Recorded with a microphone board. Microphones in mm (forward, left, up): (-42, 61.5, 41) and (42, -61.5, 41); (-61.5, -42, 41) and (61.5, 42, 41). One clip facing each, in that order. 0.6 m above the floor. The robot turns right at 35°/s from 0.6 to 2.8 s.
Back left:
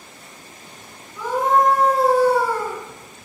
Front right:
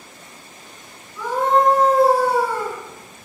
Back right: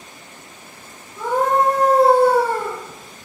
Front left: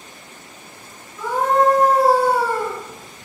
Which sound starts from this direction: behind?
A scream, at 1.2 s.